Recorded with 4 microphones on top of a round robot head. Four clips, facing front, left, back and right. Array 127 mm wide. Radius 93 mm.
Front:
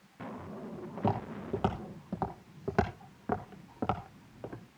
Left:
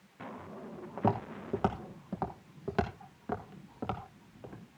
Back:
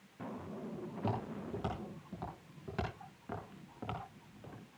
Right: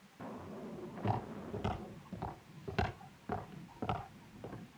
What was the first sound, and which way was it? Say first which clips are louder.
Footsteps: left 7 dB, front 7 dB; 70° left.